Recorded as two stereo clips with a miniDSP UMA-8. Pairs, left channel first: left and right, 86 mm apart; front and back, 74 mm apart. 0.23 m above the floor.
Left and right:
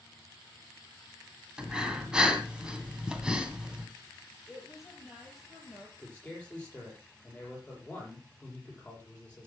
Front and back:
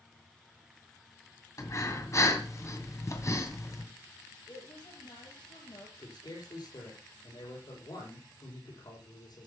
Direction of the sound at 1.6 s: 15° right.